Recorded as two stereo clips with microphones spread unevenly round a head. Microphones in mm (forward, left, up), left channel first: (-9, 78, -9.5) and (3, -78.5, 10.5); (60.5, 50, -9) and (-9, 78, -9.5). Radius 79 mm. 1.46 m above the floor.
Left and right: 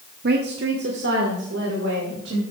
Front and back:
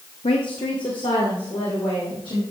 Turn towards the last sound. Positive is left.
turn(degrees=-75)